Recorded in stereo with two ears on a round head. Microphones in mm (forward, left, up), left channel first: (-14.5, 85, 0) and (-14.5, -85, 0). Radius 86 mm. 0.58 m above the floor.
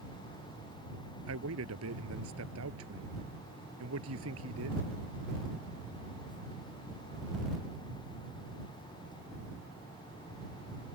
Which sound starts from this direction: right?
A man speaking, at 1.3 s.